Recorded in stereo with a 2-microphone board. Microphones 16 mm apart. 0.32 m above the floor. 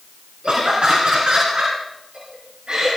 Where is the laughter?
75° right (ahead or behind), 3.5 m; by 2.9 s 70° right (ahead or behind), 4 m.